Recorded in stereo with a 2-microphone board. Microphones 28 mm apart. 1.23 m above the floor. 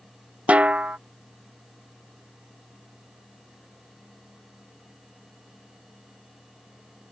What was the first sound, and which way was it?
A snare drum, 50° right (ahead or behind).